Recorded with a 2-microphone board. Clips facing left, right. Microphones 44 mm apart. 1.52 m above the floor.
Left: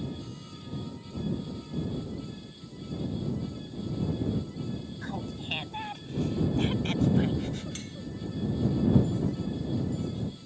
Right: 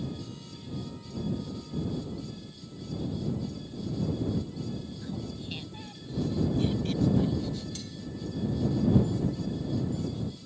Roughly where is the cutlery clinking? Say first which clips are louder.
Left 1 dB; left.